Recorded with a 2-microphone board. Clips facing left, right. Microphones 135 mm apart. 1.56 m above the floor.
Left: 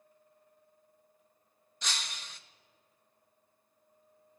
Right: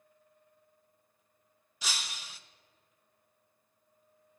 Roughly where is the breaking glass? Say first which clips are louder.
Even; centre.